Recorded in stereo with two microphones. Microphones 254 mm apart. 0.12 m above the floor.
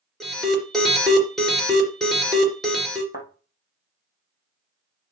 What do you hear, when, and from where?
0.2 s an alarm: centre (ahead or behind), 3.5 m
3.1 s a thud: 35° left (ahead or behind), 3 m